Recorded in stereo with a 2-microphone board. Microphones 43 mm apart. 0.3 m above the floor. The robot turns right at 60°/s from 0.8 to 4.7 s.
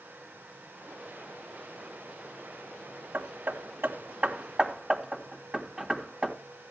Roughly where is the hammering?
Right.